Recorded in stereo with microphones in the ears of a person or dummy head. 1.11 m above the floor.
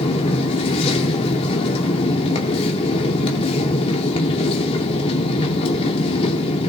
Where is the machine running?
35° left (ahead or behind), 2 m.